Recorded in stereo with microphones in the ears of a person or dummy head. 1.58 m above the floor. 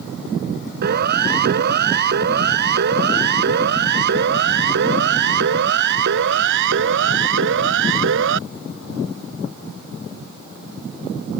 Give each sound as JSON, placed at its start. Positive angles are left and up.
{"t": 0.8, "sound": "a siren", "side_deg": -60}